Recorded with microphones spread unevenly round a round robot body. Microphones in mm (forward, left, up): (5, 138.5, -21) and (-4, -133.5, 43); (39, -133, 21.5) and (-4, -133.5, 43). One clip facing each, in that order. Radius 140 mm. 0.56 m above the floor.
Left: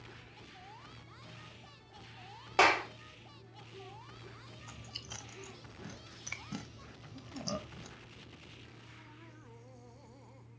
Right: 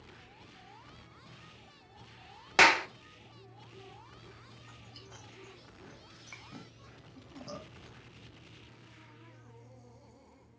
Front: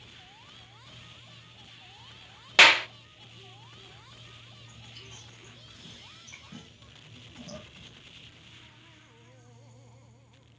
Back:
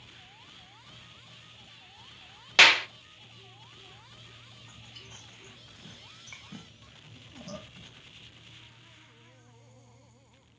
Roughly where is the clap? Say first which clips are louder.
Right 1 dB, front 1 dB; ahead right.